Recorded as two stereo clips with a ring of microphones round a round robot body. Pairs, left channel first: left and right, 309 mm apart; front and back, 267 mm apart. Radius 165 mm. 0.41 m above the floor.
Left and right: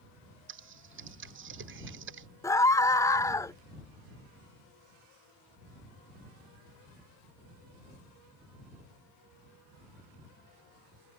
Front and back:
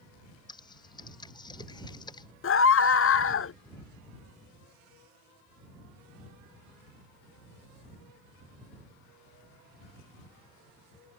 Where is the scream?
10° left.